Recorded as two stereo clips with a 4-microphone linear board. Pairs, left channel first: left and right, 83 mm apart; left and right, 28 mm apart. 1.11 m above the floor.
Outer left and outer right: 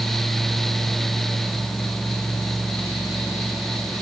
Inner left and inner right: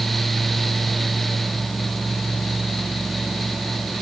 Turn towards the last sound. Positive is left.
No sound to turn to.